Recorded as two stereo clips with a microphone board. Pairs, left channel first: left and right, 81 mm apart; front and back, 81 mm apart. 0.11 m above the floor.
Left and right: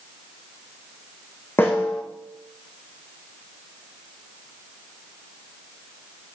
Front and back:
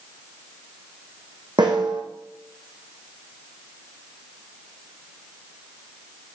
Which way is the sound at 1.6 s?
150° left.